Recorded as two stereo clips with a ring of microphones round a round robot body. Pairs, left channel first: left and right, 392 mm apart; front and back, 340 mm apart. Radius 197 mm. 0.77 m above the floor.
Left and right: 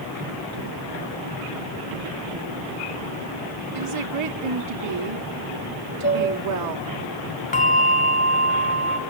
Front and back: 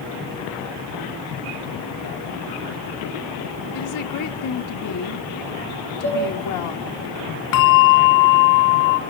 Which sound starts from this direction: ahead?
A bell, at 7.5 s.